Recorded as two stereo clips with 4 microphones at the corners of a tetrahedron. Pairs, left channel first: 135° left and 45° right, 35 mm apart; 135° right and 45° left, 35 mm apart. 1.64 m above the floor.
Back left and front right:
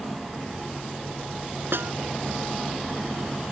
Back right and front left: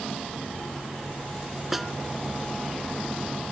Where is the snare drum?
40° right.